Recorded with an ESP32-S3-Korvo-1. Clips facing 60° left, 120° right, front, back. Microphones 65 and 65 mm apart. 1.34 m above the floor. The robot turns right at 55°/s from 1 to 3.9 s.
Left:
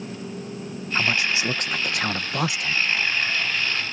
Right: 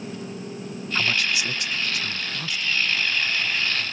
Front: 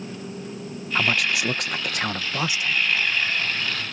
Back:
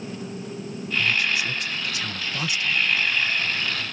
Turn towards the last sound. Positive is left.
turn(degrees=140)